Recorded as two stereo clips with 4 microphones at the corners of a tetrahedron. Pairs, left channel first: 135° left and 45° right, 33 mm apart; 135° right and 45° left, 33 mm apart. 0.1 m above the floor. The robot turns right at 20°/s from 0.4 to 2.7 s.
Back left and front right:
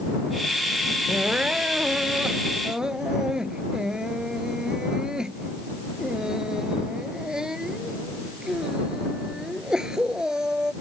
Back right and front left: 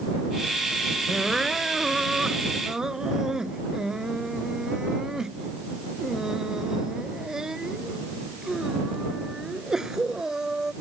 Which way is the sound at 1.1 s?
35° right.